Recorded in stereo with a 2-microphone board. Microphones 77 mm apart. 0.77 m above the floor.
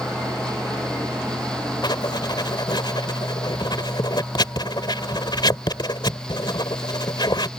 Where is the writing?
75° left (ahead or behind).